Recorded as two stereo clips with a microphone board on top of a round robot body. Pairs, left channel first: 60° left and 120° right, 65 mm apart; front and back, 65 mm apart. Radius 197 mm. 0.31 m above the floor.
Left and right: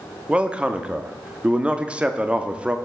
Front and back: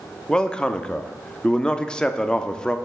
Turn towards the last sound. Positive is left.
turn(degrees=-65)